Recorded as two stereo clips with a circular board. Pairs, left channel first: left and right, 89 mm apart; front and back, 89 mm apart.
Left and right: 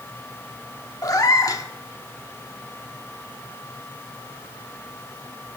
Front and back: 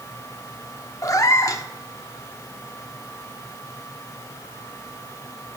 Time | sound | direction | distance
1.0 | a cat meowing | 45° left | 0.8 m